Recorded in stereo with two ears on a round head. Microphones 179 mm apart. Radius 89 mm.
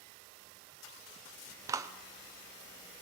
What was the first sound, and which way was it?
A clap, 15° right (ahead or behind).